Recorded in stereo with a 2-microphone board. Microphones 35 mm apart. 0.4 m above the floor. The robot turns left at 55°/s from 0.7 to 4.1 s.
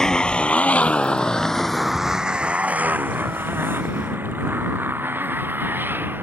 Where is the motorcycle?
15° left (ahead or behind); by 6.2 s 75° right (ahead or behind).